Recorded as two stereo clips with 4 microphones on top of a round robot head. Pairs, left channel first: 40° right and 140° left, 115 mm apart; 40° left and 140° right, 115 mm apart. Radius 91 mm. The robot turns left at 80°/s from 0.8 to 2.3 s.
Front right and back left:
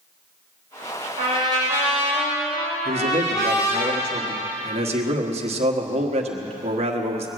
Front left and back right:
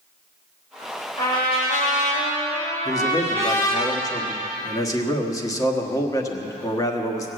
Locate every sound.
1.2 s a trumpet: 110° left, 4.5 m; by 3.9 s 20° left, 4.5 m
2.9 s a man speaking: 105° left, 1.5 m